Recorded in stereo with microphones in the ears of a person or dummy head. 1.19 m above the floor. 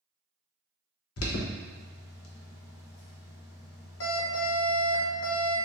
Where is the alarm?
80° left, 0.9 m.